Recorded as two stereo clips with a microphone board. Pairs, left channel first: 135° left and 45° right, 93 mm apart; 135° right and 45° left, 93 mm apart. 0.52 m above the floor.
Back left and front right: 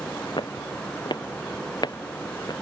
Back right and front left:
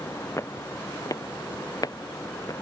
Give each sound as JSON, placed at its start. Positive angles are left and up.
{"t": 0.4, "sound": "footsteps", "azimuth_deg": 165}